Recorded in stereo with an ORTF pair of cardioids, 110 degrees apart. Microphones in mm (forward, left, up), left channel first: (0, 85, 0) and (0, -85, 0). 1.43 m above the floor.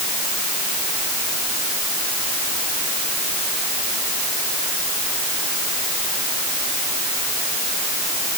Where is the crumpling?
I don't hear crumpling.